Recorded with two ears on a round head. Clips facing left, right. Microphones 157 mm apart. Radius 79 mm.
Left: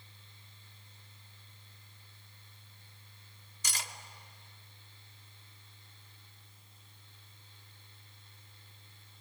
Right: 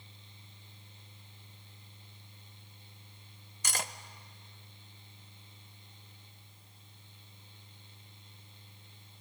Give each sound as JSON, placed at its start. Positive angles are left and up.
{"t": 3.6, "sound": "cutlery clinking", "side_deg": -45, "distance_m": 0.6}